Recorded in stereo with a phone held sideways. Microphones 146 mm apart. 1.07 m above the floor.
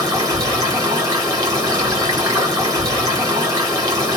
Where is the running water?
25° right (ahead or behind), 1.3 m.